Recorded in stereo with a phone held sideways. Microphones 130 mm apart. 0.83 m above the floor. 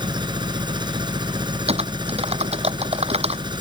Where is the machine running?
35° right (ahead or behind).